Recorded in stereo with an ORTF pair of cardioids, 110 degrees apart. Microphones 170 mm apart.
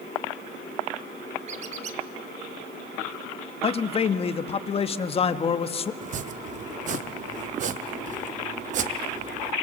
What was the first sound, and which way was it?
A squeak, 45° right.